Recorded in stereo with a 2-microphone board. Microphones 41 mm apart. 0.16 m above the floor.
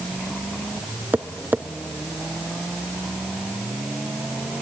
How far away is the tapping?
About 0.5 m.